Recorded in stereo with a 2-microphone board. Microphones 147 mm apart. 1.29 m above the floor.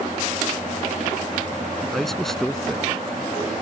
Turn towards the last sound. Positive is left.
turn(degrees=5)  # may be behind; listen again after turning